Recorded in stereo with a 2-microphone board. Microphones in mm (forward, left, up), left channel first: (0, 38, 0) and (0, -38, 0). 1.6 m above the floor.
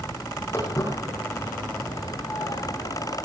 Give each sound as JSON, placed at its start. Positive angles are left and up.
{"t": 0.5, "sound": "footsteps", "side_deg": 30, "distance_m": 5.0}